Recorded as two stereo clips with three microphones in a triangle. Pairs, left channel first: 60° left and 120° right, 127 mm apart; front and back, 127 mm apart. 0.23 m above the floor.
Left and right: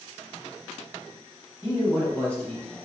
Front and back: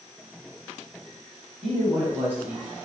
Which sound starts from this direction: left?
A man speaking, at 1.6 s.